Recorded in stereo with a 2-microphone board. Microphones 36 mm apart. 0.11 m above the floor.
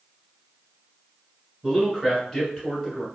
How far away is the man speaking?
About 1.8 m.